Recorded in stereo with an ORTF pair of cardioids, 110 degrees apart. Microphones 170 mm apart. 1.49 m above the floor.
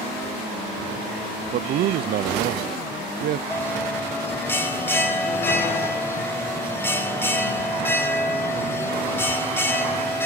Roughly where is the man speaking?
Ahead right.